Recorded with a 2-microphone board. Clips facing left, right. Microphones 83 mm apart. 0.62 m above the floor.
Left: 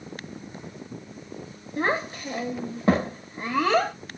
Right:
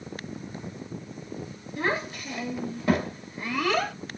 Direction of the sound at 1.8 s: 30° left (ahead or behind).